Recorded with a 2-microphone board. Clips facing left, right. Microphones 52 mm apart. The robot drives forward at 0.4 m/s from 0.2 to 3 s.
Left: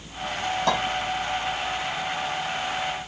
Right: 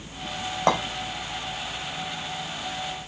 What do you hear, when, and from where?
0.7 s a clink: 45° right (ahead or behind), 4 m